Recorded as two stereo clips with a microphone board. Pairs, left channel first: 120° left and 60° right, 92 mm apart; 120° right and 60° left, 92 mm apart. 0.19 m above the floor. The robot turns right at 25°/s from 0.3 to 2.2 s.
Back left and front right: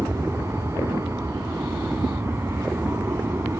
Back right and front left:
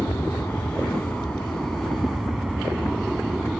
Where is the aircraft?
75° right; by 3.6 s 30° right.